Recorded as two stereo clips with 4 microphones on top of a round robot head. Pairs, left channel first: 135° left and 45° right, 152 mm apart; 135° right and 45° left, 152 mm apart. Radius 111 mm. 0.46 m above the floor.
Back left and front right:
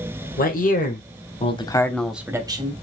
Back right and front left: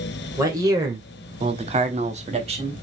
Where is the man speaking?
120° left, 2.5 m; by 2.8 s straight ahead, 1.5 m.